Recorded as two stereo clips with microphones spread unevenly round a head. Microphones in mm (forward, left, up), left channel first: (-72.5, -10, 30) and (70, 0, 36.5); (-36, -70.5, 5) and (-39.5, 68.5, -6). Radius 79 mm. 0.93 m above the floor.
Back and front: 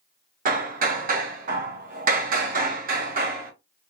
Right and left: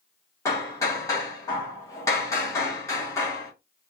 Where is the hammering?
15° right, 1.0 m.